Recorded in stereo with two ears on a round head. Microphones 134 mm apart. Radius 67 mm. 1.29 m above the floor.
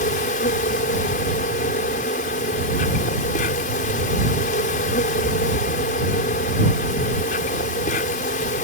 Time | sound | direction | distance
0.0 | an insect | 55° left (ahead or behind) | ?